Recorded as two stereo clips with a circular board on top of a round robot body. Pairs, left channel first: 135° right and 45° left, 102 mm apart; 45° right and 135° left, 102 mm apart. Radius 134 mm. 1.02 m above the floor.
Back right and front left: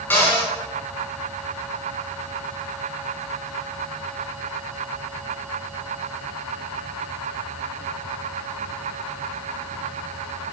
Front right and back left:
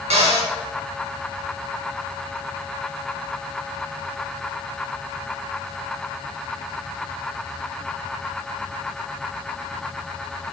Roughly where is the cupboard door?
Behind left.